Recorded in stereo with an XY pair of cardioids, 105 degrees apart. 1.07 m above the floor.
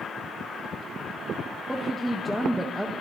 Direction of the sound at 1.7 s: 5° right.